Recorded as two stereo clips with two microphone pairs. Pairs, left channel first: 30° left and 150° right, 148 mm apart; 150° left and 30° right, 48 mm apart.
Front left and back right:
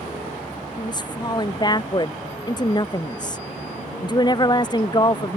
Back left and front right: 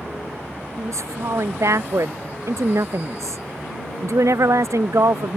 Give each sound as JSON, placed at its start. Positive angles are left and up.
{"t": 0.8, "sound": "a woman speaking", "azimuth_deg": -30}